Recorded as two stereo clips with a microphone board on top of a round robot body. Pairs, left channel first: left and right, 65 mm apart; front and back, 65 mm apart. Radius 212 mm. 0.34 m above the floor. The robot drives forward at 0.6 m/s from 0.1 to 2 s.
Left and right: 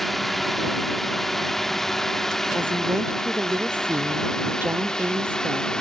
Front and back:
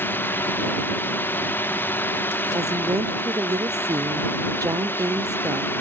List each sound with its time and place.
0.0 s a drone: 5° left; by 5.8 s 20° left
2.5 s a woman speaking: 150° right